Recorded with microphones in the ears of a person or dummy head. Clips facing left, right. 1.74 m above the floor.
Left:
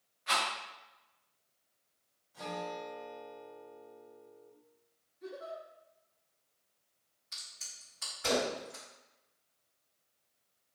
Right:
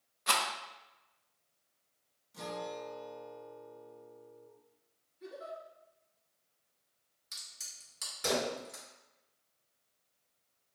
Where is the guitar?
45° right (ahead or behind), 1.0 m.